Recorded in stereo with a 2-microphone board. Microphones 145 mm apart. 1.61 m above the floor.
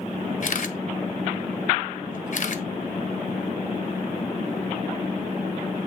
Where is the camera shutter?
60° left (ahead or behind), 0.9 m.